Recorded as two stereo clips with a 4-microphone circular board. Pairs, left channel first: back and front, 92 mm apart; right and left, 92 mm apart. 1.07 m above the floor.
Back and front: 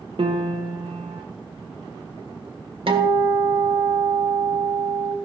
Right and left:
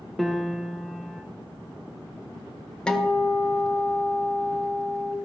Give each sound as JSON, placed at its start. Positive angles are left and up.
{"t": 0.2, "sound": "a piano", "azimuth_deg": 0, "distance_m": 1.0}
{"t": 2.9, "sound": "a guitar", "azimuth_deg": -10, "distance_m": 1.4}